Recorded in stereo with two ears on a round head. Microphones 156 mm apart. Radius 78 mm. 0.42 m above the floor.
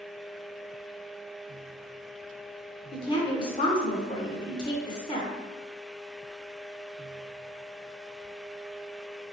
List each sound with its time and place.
2.9 s a woman speaking: 25° left (ahead or behind), 0.8 m